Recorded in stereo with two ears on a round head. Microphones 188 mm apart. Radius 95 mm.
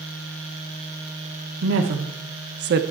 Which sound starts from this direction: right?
A woman speaking, at 1.6 s.